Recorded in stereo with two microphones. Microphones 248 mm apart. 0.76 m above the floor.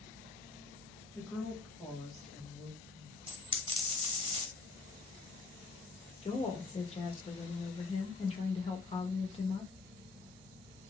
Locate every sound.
1.1 s a woman speaking: 10° left (ahead or behind), 1.1 m; by 3.2 s 5° right (ahead or behind), 2 m
3.3 s a dropped coin: 20° right (ahead or behind), 0.9 m
6.2 s a woman speaking: 25° left (ahead or behind), 0.9 m